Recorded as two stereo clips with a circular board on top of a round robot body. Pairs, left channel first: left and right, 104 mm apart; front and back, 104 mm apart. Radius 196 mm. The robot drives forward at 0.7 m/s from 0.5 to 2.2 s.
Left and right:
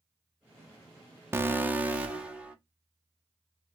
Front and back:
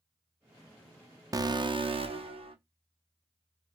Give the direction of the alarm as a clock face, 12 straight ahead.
5 o'clock.